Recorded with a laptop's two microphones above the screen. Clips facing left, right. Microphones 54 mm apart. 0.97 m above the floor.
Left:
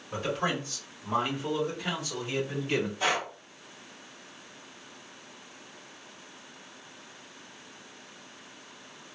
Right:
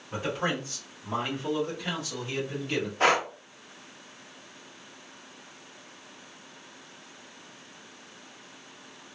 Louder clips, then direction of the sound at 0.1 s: Even; 5° right (ahead or behind).